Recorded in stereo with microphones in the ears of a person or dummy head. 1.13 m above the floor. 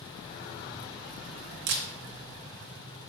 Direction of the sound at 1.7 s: 70° right (ahead or behind).